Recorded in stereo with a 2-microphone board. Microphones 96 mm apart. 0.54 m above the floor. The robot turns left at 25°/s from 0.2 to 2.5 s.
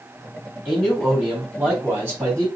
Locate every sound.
0.7 s a man speaking: straight ahead, 1.9 m; by 2.5 s 45° right, 1.9 m